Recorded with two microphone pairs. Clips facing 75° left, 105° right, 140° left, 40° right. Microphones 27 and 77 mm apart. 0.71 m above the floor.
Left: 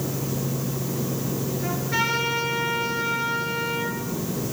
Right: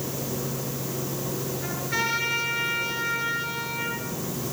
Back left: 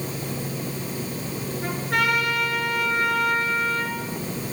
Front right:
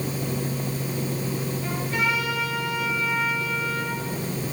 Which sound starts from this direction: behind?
A trumpet, at 1.6 s.